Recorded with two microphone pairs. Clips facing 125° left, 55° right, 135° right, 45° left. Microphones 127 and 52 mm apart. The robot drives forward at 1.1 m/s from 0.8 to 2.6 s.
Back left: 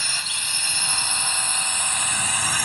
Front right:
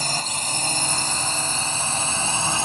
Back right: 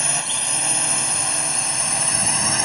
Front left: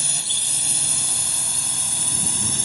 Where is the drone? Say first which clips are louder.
Front right 7 dB, back right 5 dB; 95° right; by 2.6 s 110° right.